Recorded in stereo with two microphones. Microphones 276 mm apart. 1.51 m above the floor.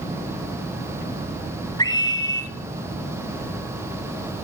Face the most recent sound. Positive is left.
turn(degrees=15)  # may be behind; listen again after turning